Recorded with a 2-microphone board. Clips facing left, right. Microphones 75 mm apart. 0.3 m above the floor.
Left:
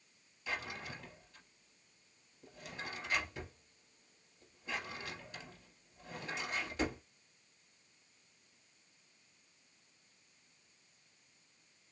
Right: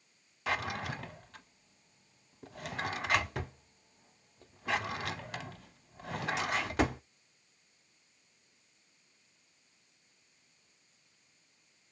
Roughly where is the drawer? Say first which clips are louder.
Right 8 dB; right.